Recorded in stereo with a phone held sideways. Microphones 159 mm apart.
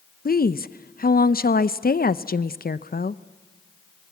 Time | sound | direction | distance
0.2 | a woman speaking | 70° left (ahead or behind) | 0.6 m